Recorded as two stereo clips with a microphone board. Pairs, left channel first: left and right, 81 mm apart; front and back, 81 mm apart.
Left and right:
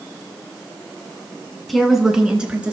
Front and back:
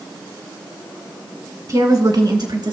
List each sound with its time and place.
1.7 s a woman speaking: straight behind, 1.4 m; by 2.7 s 165° right, 2.5 m